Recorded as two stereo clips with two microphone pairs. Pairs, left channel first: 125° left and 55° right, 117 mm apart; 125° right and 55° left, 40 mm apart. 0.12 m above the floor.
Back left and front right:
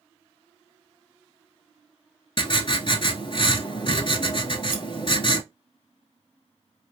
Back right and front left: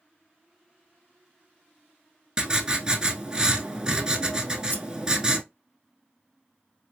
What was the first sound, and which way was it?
Writing, 115° left.